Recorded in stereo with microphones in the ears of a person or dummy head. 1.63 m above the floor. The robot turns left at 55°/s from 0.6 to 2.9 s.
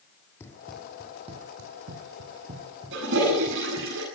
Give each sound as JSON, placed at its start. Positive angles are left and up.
{"t": 0.4, "sound": "running footsteps", "side_deg": 15, "distance_m": 3.5}
{"t": 2.9, "sound": "a toilet flushing", "side_deg": -70, "distance_m": 9.0}